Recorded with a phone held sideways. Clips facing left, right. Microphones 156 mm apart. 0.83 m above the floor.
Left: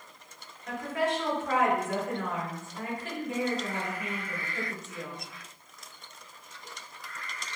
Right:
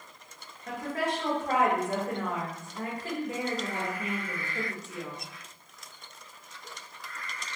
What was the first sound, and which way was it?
A woman speaking, 35° right (ahead or behind).